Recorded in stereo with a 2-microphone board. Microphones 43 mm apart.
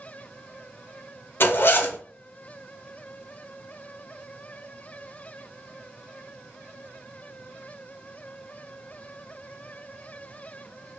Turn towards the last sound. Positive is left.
turn(degrees=60)  # may be behind; listen again after turning